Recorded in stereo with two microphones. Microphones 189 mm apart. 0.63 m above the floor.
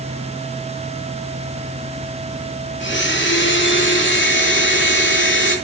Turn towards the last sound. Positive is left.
turn(degrees=80)